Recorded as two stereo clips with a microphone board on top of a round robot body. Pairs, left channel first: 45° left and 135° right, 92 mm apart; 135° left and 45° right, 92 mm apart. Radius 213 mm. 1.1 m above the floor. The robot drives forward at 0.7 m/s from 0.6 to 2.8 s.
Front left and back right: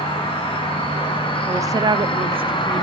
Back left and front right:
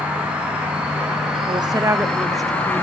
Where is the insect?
30° left, 2.5 m; by 2.8 s 65° left, 1.7 m.